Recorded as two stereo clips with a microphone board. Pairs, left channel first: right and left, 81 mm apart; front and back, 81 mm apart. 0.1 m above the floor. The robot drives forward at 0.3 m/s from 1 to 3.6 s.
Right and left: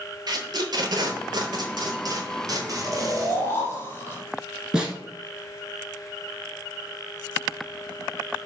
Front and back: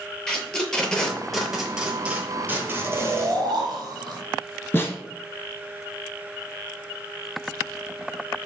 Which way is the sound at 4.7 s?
15° left.